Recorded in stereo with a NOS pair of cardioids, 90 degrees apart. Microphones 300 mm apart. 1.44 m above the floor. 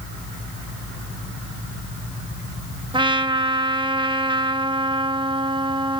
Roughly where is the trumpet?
Ahead.